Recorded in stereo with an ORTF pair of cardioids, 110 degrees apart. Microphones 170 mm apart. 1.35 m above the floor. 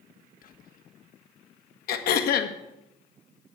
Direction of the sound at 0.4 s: 55° left.